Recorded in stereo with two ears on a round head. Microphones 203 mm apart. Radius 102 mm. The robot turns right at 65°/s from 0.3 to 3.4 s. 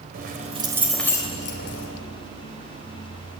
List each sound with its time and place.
0.1 s keys jangling: 40° right, 3.5 m; by 1.9 s 65° left, 3.5 m